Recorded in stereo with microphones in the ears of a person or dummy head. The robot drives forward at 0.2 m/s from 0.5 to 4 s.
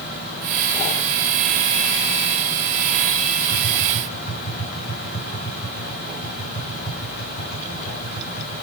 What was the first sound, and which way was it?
Tapping, 60° left (ahead or behind).